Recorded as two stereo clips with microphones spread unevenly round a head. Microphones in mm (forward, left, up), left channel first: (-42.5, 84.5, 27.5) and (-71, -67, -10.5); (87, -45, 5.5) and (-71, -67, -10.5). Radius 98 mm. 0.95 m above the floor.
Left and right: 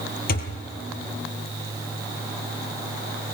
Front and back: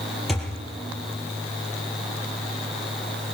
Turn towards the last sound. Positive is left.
turn(degrees=95)